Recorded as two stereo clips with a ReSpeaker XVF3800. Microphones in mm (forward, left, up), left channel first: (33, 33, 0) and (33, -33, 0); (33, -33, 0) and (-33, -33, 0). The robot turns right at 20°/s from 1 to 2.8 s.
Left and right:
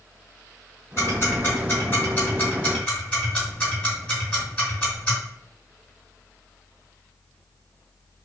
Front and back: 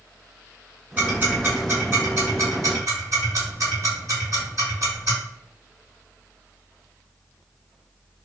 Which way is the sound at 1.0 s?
125° left.